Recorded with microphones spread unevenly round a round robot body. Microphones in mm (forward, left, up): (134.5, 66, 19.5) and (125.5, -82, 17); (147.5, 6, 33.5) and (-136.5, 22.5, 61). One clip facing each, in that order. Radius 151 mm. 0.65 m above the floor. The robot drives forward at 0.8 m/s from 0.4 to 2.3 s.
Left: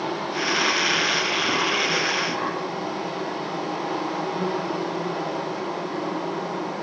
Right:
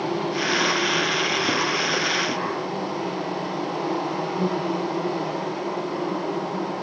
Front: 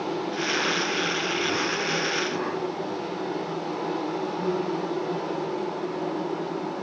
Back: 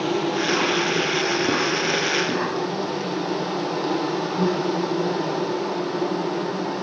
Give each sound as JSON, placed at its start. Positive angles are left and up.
{"t": 0.0, "sound": "an insect", "azimuth_deg": -165, "distance_m": 3.5}